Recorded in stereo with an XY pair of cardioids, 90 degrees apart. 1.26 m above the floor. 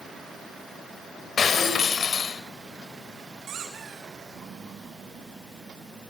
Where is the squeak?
65° right, 6 m.